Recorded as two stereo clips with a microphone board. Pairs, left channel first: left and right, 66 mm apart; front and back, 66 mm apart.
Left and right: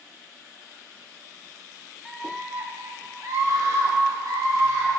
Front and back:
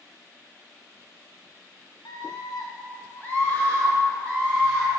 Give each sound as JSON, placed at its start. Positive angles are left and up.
{"t": 2.0, "sound": "a scream", "azimuth_deg": 0, "distance_m": 1.3}